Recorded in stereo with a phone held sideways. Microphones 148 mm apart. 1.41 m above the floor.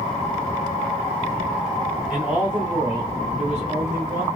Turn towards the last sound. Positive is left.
turn(degrees=-70)  # may be behind; listen again after turning